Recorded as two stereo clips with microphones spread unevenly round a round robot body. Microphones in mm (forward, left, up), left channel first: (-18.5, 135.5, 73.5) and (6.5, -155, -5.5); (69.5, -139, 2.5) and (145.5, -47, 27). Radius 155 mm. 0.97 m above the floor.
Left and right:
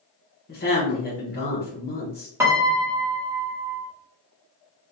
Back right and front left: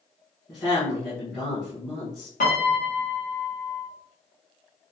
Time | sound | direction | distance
0.5 | a woman speaking | 160° left | 0.9 m
2.4 | a piano | 170° right | 0.6 m